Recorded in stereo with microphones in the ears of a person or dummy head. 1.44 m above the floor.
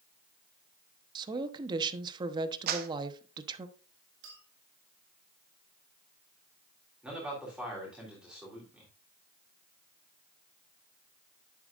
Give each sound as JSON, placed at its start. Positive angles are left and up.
{"t": 1.1, "sound": "a woman speaking", "side_deg": -30, "distance_m": 1.0}
{"t": 2.7, "sound": "a clap", "side_deg": -60, "distance_m": 1.1}
{"t": 4.2, "sound": "a clink", "side_deg": -75, "distance_m": 2.5}
{"t": 7.0, "sound": "a man speaking", "side_deg": 0, "distance_m": 3.5}